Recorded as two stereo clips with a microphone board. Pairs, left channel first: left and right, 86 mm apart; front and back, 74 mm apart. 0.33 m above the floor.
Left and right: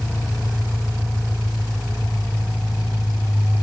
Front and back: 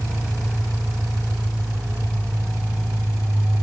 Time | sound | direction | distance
0.0 | an engine running | 170° right | 3.5 m